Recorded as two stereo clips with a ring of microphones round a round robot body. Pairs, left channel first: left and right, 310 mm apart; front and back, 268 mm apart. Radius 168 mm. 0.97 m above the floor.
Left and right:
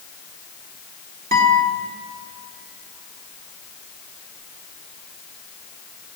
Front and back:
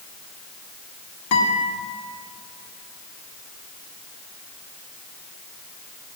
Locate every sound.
1.3 s a guitar: 30° right, 2 m